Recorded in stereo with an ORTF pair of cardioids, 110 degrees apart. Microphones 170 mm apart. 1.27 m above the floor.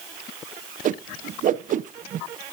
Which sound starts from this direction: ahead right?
A whoosh, at 0.8 s.